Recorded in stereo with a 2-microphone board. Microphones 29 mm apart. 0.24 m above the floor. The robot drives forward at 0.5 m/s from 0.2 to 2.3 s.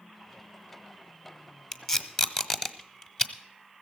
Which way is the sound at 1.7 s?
15° left (ahead or behind).